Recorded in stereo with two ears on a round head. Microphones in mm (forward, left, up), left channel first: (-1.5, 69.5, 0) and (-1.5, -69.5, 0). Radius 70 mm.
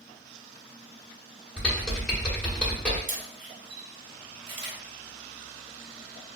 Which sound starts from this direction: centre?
Typing on a keyboard, at 1.6 s.